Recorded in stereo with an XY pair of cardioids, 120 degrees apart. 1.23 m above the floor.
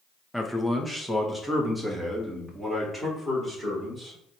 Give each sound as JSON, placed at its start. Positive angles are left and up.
{"t": 0.3, "sound": "a man speaking", "azimuth_deg": 0, "distance_m": 0.8}